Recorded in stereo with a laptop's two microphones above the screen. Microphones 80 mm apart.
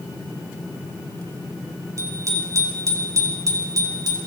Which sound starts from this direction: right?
A bicycle bell, at 2.0 s.